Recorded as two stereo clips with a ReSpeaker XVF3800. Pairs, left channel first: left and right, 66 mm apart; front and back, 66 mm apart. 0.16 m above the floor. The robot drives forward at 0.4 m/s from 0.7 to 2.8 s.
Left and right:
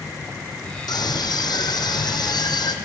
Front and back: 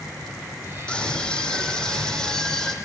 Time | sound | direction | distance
0.9 | a scream | 80° left | 7.5 m